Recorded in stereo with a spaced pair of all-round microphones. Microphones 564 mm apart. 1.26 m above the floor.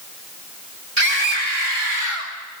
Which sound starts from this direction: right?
A scream, at 1.0 s.